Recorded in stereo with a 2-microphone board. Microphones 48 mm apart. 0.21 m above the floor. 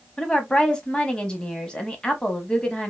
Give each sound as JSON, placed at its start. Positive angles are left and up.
{"t": 0.2, "sound": "a woman speaking", "side_deg": 15, "distance_m": 1.0}